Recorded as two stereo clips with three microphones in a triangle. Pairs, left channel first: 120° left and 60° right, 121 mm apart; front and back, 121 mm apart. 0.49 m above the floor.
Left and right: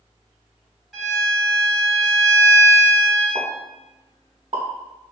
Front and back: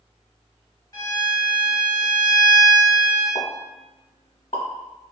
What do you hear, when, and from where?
0.9 s a violin: 30° left, 1.4 m
3.4 s a pop: 25° right, 0.7 m